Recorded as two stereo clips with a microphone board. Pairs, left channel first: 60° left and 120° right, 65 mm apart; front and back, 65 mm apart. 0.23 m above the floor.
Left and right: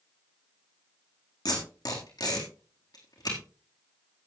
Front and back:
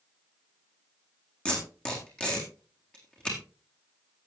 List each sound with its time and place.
1.4 s tape being pulled: 75° left, 4 m